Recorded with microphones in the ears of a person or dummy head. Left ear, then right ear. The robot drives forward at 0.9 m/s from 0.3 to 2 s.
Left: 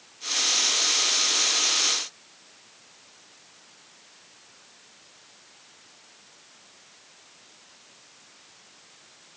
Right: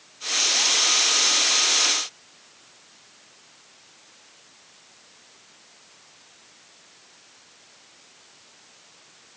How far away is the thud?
I don't hear a thud.